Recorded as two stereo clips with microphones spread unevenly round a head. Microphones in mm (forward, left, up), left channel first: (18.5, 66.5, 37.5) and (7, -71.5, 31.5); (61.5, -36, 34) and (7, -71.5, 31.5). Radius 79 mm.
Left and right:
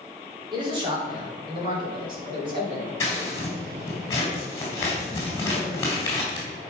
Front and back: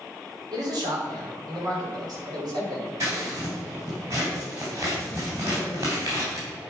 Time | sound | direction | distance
0.5 | a man speaking | 150° right | 3 m
3.0 | scissors | 155° left | 3 m